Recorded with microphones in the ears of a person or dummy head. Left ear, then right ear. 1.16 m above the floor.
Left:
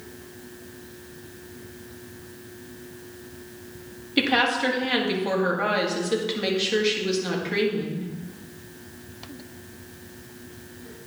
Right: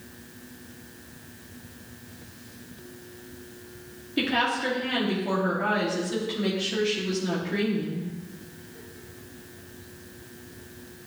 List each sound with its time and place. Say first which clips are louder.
4.2 s a woman speaking: left 4 dB; 45° left (ahead or behind), 1.9 m